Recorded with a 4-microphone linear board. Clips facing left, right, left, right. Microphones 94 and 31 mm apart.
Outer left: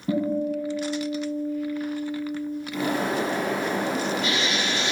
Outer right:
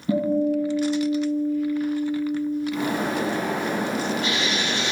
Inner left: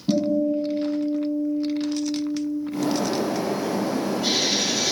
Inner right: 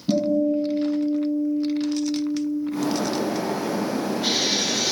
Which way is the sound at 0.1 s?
40° left (ahead or behind).